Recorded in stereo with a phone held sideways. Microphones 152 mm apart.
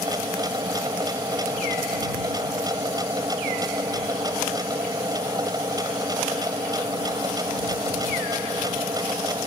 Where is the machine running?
25° right (ahead or behind).